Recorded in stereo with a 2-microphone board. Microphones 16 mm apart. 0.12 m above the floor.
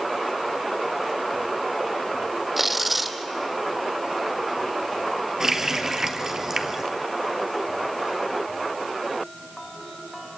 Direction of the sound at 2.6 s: 10° right (ahead or behind).